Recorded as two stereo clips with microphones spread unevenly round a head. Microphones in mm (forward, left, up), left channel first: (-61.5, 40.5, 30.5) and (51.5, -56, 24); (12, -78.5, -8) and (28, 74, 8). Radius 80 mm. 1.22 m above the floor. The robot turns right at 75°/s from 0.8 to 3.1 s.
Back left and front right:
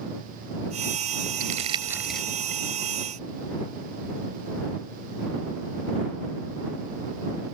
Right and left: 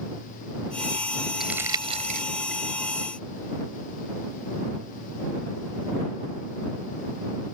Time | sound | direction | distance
1.4 | crumpling | 5° right | ?